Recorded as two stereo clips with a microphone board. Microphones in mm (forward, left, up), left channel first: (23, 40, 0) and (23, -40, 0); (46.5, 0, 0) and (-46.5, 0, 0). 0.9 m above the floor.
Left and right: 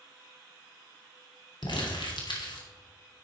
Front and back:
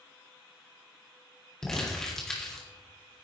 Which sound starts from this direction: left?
Crumpling, at 1.6 s.